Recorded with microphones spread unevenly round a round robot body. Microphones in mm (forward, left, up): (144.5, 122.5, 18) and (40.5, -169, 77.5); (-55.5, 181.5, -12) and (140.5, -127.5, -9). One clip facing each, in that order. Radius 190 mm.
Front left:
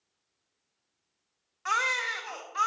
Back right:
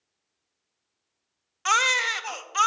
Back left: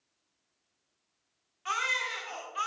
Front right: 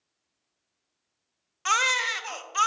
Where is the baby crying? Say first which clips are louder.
Back right 5 dB, front right 7 dB; 65° right, 0.5 m.